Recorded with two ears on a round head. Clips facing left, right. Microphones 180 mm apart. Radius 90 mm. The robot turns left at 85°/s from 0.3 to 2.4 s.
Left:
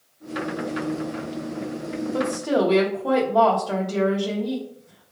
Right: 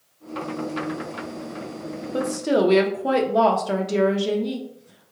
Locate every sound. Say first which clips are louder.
2.1 s a woman speaking: right 2 dB; 20° right (ahead or behind), 0.6 m; by 5.1 s 25° right (ahead or behind), 0.6 m